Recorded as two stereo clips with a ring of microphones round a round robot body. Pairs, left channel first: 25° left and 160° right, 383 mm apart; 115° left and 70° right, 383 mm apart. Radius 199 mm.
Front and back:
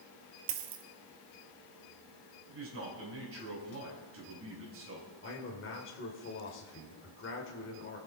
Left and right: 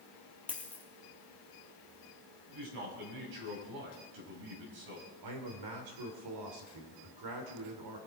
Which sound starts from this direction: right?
A man speaking, at 2.5 s.